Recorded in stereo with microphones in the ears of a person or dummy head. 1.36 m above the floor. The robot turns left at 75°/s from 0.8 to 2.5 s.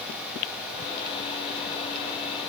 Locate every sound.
Only background noise.